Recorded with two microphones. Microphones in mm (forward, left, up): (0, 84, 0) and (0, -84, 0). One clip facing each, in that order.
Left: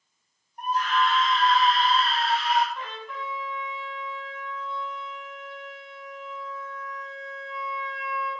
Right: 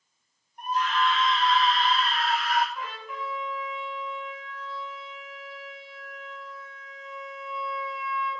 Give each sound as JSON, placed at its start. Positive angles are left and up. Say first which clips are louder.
{"t": 0.6, "sound": "a scream", "louder": "left 1 dB", "side_deg": 40, "distance_m": 2.5}
{"t": 2.8, "sound": "a trumpet", "louder": "even", "side_deg": -5, "distance_m": 3.0}